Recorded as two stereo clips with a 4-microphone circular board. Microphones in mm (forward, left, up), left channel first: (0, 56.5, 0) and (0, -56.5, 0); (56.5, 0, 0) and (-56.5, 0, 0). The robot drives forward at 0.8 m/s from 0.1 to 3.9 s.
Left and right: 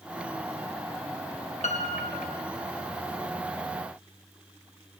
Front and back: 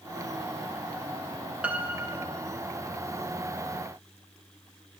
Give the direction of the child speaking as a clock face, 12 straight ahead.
I don't hear a child speaking.